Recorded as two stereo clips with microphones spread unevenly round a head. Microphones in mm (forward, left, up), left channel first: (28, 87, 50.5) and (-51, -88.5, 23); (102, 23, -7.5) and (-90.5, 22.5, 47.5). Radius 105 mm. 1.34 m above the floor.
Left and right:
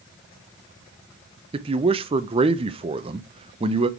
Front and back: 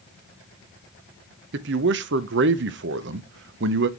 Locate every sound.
1.5 s a man speaking: straight behind, 0.6 m